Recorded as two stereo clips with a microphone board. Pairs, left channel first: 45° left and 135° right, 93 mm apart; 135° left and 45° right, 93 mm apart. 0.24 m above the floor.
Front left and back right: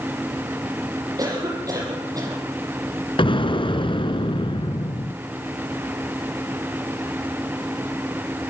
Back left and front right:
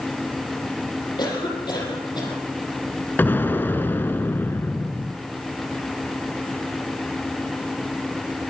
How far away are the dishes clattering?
I don't hear dishes clattering.